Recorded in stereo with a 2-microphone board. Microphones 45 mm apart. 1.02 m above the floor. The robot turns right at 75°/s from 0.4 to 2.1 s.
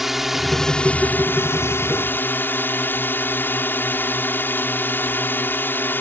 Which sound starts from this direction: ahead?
A drone, at 0.0 s.